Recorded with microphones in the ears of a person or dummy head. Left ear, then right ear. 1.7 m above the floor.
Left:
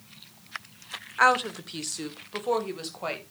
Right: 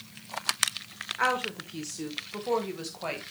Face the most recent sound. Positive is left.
turn(degrees=15)  # may be behind; listen again after turning